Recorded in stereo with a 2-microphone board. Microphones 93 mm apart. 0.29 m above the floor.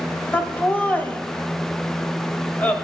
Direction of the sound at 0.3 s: 20° left (ahead or behind).